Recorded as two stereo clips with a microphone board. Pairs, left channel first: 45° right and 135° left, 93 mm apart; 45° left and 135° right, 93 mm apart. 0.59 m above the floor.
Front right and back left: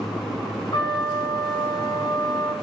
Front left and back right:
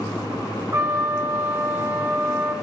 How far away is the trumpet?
About 1.3 m.